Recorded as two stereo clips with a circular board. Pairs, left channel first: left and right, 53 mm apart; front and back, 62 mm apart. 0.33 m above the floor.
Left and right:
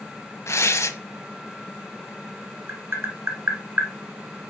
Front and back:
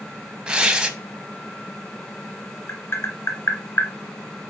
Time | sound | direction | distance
0.5 | tearing paper | 110° left | 1.1 m
2.7 | tapping | 45° right | 1.9 m